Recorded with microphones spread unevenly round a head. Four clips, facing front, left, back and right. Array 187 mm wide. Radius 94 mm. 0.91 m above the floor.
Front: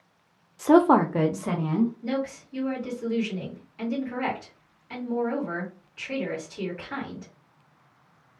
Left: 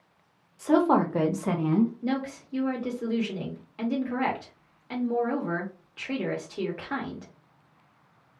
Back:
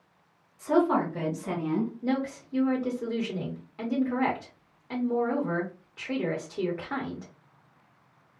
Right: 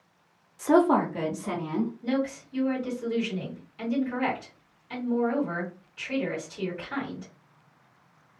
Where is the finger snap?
I don't hear a finger snap.